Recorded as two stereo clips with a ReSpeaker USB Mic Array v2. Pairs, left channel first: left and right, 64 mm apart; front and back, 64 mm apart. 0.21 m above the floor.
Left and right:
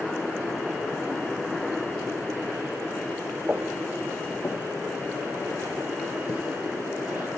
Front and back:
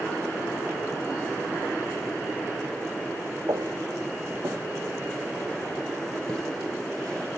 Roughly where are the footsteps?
Behind.